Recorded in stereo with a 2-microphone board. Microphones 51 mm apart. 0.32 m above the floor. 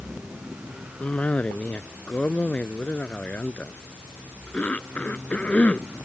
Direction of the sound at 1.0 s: 30° left (ahead or behind).